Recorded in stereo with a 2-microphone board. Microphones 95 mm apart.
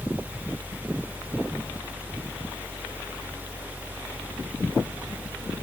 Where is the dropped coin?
I don't hear a dropped coin.